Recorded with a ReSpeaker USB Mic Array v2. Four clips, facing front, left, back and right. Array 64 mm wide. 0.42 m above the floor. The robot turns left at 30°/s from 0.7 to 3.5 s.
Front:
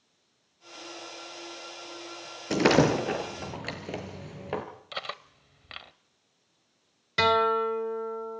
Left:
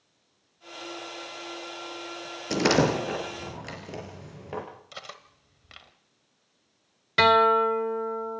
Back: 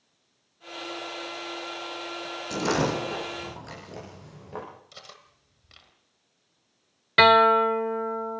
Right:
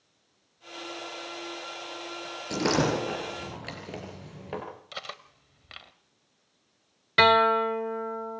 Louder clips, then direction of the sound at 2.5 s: Left 3 dB, front 4 dB; 25° left.